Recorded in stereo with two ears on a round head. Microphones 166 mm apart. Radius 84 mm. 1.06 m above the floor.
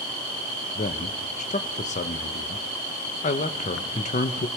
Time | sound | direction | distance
0.8 | a man speaking | 40° left (ahead or behind) | 0.8 m